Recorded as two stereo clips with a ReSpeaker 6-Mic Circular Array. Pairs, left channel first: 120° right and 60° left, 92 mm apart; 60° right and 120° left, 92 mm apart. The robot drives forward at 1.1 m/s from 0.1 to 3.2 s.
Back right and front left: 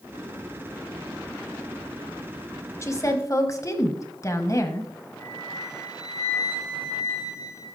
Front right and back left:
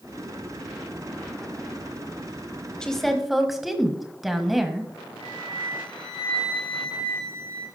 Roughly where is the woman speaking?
Behind right.